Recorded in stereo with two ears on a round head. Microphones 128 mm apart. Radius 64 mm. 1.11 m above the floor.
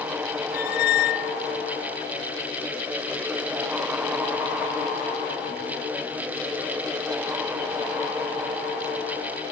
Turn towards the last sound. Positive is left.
turn(degrees=75)  # may be behind; listen again after turning